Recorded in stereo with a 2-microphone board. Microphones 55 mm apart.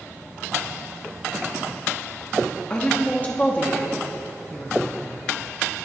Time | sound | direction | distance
2.7 | a woman speaking | 25° left (ahead or behind) | 0.9 m